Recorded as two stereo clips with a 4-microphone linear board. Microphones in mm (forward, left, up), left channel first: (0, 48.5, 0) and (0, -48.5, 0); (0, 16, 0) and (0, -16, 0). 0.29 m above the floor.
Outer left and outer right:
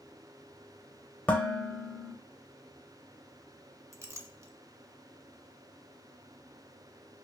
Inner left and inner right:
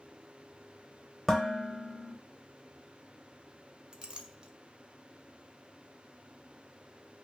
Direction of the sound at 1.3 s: 15° left (ahead or behind).